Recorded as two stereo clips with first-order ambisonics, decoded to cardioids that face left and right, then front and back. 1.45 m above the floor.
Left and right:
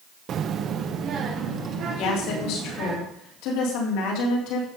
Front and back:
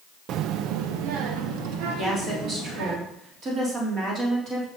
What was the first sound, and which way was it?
A child speaking, 140° right.